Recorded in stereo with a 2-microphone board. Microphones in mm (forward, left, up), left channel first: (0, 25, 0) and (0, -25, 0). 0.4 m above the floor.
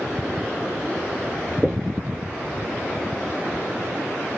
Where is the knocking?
10° right (ahead or behind), 0.7 m.